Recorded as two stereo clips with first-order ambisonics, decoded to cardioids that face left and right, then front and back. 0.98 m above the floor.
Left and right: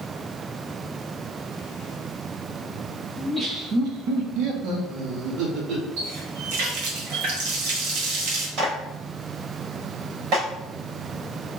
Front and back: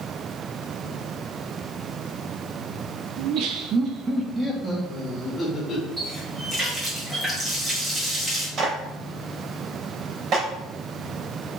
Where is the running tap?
95° right, 1.9 m.